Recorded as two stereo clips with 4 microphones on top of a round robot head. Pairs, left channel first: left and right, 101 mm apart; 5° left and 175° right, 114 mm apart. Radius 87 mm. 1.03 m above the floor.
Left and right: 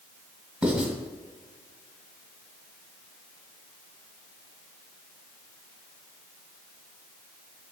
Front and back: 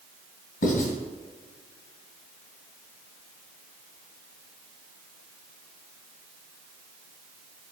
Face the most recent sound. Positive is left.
turn(degrees=-5)